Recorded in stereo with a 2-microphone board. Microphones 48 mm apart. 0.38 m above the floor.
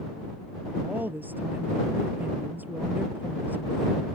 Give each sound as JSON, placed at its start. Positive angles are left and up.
{"t": 0.8, "sound": "a woman speaking", "side_deg": -40}